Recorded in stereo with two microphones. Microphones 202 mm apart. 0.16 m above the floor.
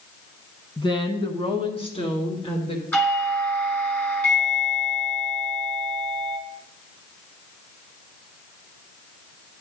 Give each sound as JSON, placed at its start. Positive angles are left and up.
{"t": 0.8, "sound": "a woman speaking", "side_deg": 20, "distance_m": 1.4}
{"t": 2.9, "sound": "a doorbell", "side_deg": 10, "distance_m": 3.0}